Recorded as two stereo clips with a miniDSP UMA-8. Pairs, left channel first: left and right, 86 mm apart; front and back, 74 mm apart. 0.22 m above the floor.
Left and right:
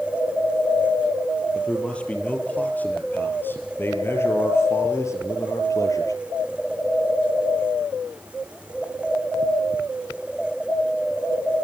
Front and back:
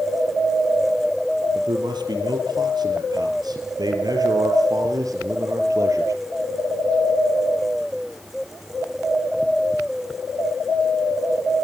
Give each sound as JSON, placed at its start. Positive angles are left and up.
{"t": 1.5, "sound": "a man speaking", "azimuth_deg": 170, "distance_m": 5.5}